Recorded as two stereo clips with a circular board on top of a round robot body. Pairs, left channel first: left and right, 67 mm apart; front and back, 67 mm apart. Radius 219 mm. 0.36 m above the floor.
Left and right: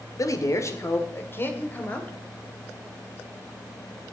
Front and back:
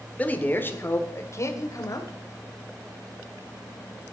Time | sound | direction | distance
0.2 | a man speaking | 65° left | 1.8 m